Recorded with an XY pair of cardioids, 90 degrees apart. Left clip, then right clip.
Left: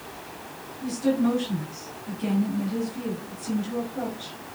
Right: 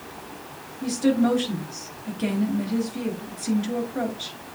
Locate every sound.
0.8 s a woman speaking: 65° right, 4.5 m